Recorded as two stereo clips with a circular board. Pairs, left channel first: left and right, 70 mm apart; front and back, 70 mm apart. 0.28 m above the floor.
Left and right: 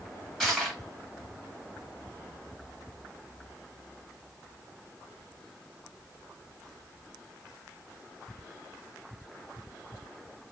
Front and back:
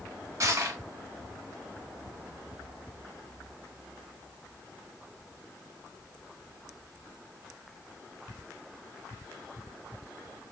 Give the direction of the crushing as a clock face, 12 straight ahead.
6 o'clock.